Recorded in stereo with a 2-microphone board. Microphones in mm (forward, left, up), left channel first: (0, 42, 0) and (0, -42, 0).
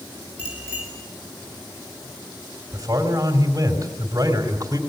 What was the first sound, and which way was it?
A bicycle bell, 15° right (ahead or behind).